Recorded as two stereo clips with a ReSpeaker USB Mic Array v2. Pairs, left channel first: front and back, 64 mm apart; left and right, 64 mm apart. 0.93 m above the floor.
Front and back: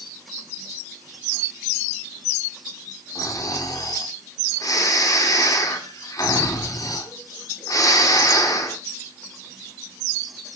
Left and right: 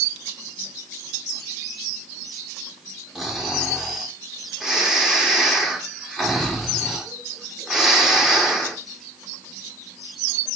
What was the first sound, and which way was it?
Snoring, 5° right.